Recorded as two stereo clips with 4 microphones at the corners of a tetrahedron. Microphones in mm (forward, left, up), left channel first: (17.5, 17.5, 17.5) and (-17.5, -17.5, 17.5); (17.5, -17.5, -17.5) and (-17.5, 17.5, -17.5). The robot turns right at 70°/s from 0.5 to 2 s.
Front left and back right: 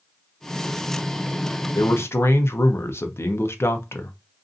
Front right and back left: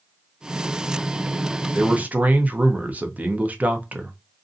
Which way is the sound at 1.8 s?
60° left.